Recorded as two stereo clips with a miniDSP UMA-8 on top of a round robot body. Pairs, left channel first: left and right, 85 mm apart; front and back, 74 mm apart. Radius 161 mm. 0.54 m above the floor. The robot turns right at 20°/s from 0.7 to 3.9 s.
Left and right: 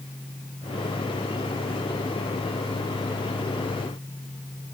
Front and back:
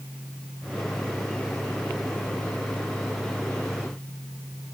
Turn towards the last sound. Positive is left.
No sound to turn to.